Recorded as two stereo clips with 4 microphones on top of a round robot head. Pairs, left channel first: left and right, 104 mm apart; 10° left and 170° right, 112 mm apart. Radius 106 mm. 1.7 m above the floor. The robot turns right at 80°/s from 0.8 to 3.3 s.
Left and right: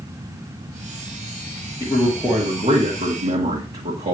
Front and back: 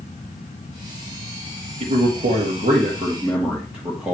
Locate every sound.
1.8 s a man speaking: 150° left, 1.9 m; by 4.1 s 90° right, 1.9 m